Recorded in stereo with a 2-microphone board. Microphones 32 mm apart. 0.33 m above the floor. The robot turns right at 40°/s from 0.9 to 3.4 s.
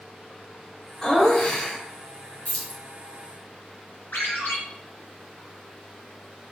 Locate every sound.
1.0 s laughter: 40° left, 0.9 m; by 1.8 s 70° left, 0.9 m
2.5 s keys jangling: 45° left (ahead or behind), 1.0 m
4.1 s a ringtone: 80° left, 1.6 m